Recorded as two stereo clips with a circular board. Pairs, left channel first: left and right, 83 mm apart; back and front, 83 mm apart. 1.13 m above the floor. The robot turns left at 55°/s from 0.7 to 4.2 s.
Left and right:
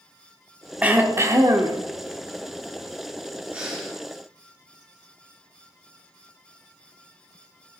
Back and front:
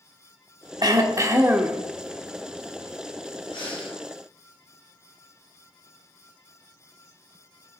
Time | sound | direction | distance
0.8 | throat clearing | 20° right | 1.0 m
3.5 | breathing | 165° right | 2 m